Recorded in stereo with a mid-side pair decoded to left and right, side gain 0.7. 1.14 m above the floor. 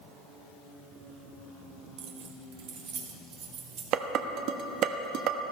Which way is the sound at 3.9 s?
55° right.